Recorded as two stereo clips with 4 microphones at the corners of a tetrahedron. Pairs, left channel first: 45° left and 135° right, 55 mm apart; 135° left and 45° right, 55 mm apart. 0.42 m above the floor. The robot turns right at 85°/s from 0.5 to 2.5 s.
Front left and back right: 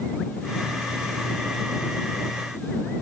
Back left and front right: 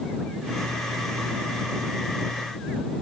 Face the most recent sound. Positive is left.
No sound to turn to.